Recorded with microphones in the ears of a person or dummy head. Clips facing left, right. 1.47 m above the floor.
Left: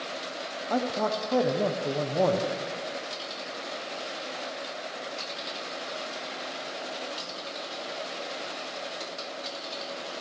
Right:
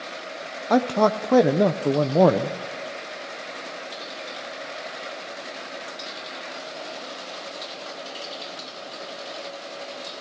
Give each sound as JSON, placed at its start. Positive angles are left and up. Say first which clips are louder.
{"t": 0.7, "sound": "a man speaking", "louder": "right 8 dB", "side_deg": -70, "distance_m": 0.7}